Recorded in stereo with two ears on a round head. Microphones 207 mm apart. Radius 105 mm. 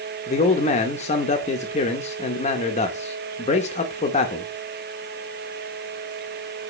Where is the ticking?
No ticking in this recording.